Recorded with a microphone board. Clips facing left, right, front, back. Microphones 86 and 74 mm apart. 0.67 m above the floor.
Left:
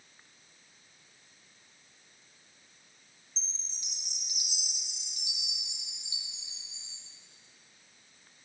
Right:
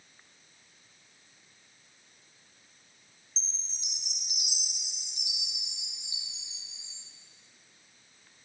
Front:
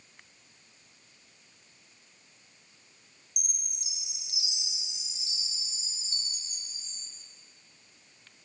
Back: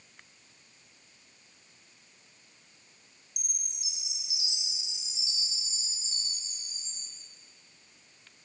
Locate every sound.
3.4 s a chime: 30° right, 5 m